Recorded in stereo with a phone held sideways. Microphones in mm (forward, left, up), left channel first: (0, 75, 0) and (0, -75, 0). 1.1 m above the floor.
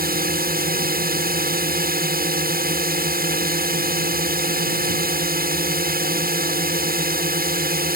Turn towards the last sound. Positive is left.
turn(degrees=-70)  # may be behind; listen again after turning